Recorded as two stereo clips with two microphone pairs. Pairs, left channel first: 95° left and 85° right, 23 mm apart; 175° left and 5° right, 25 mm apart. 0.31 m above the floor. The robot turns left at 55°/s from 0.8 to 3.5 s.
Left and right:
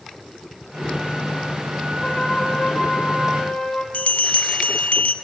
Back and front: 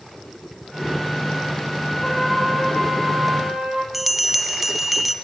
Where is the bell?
80° left, 0.7 m.